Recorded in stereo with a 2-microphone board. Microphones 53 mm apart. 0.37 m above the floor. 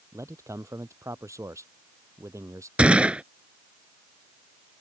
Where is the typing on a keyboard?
I don't hear typing on a keyboard.